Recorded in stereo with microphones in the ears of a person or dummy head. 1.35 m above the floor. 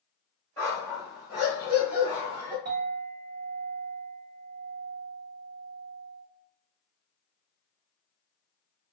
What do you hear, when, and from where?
0.6 s a dog barking: 10° left (ahead or behind), 1.4 m; by 2.5 s 40° right (ahead or behind), 1.4 m
2.6 s a clink: 40° right (ahead or behind), 1.0 m